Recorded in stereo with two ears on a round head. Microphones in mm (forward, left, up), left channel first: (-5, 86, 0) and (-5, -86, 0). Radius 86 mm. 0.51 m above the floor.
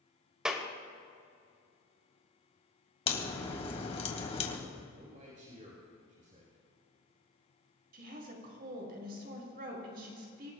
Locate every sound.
0.5 s a clap: 5° right (ahead or behind), 1.7 m
3.1 s a crack: 30° left (ahead or behind), 2 m
4.9 s a man speaking: 40° right (ahead or behind), 3.5 m
7.9 s a woman speaking: 50° right (ahead or behind), 4.5 m